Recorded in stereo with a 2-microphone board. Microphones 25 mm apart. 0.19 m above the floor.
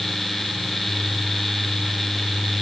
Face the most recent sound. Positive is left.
No sound to turn to.